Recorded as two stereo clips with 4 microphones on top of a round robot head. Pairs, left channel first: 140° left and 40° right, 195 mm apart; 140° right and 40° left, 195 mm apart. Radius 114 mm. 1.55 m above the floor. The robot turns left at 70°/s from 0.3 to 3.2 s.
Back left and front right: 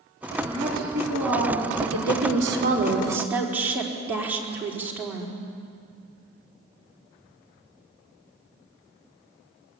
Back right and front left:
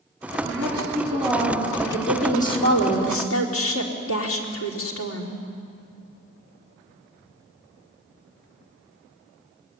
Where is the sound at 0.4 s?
25° left, 5 m; by 1.7 s 65° right, 5 m.